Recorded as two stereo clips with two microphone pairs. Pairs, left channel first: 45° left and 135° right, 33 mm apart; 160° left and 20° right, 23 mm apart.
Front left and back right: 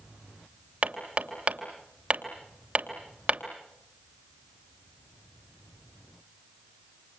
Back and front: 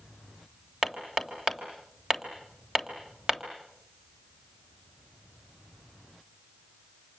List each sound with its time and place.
0.8 s hammering: 85° right, 3 m